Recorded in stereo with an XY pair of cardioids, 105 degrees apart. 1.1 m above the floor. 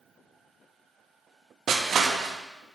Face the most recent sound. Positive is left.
turn(degrees=-55)